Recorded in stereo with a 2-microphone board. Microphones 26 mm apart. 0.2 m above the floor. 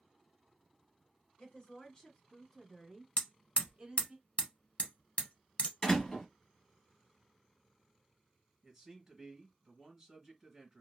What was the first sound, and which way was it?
A woman speaking, 40° left (ahead or behind).